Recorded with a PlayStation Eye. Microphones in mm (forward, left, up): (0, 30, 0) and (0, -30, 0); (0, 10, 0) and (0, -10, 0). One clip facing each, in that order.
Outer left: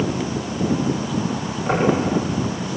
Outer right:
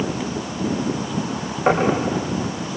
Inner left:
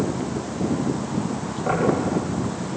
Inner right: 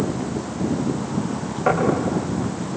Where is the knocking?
50° right (ahead or behind), 9 m.